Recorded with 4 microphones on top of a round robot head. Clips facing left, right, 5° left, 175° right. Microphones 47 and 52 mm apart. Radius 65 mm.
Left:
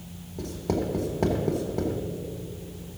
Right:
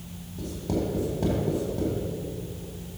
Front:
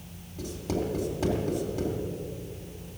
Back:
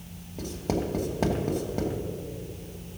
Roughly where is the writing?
Behind left.